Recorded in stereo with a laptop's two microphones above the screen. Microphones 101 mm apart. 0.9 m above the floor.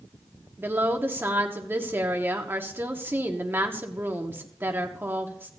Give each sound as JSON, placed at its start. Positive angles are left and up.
{"t": 0.6, "sound": "a woman speaking", "side_deg": -20, "distance_m": 1.6}